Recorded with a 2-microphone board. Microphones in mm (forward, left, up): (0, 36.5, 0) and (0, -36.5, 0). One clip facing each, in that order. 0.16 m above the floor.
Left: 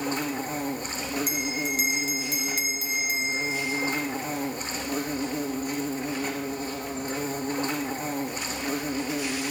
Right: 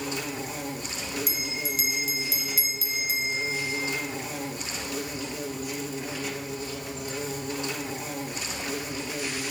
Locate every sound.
0.0 s an insect: 40° left (ahead or behind), 2 m
1.3 s a bell: 45° left (ahead or behind), 1.9 m